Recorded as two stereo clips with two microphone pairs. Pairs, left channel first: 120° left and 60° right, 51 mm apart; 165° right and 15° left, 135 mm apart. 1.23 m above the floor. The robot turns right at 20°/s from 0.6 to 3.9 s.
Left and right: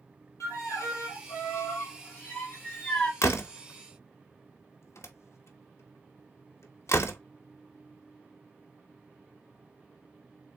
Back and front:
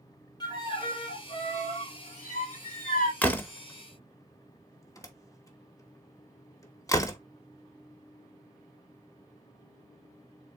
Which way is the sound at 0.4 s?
135° left.